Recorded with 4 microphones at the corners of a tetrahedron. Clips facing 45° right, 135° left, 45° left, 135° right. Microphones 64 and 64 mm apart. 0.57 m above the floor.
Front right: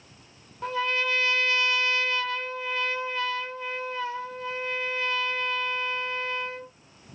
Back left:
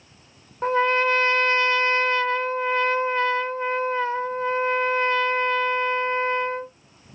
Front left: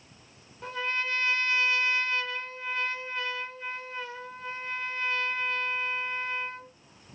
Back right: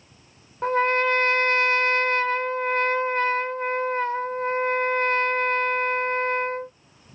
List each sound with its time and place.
0.6 s a trumpet: 175° right, 0.6 m